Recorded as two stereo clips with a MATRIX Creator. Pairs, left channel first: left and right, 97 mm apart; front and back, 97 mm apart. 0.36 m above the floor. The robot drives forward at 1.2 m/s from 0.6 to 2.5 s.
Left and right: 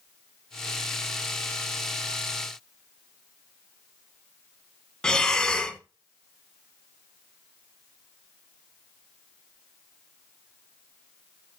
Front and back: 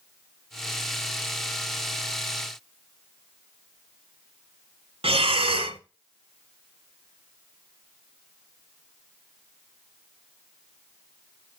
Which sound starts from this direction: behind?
Breathing, at 5.0 s.